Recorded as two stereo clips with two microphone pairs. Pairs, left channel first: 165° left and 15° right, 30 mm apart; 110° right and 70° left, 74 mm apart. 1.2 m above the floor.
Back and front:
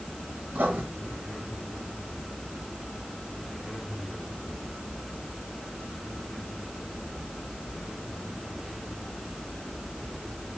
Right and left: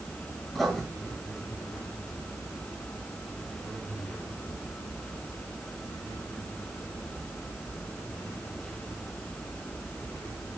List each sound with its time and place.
0.5 s writing: 25° right, 5.5 m